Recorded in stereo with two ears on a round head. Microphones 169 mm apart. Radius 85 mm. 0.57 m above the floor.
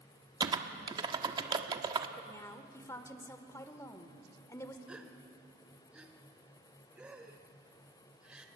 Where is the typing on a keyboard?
20° right (ahead or behind), 1.2 m.